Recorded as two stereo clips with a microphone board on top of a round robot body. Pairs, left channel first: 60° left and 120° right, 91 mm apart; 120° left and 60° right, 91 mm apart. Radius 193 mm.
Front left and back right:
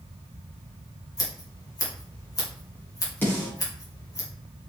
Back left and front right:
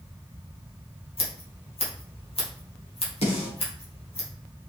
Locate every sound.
1.2 s scissors: 110° left, 3 m
3.2 s a snare drum: 130° left, 3.5 m